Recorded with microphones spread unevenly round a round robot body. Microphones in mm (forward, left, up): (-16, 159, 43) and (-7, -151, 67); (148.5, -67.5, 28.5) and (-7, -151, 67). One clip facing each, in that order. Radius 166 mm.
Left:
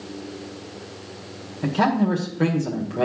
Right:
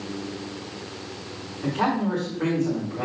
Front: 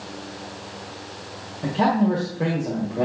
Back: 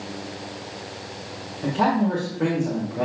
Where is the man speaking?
110° left, 1.9 m.